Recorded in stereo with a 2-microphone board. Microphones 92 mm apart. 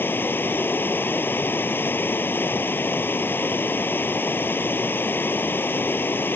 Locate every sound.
0.0 s running water: 25° left (ahead or behind)